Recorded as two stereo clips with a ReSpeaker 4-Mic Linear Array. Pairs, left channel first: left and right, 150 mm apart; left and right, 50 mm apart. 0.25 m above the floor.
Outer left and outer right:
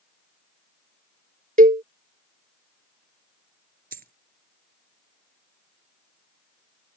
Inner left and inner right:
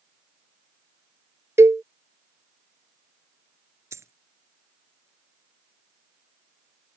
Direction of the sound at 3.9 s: 75° right (ahead or behind).